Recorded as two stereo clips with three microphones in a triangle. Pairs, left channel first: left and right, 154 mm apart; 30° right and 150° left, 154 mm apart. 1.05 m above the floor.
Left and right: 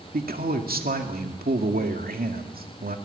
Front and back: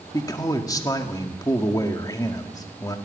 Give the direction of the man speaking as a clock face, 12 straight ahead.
3 o'clock.